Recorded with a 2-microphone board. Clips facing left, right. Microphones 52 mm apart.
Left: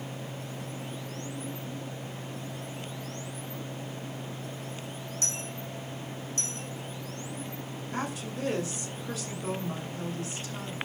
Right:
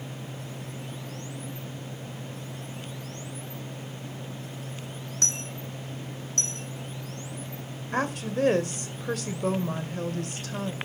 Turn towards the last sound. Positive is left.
turn(degrees=-60)  # may be behind; listen again after turning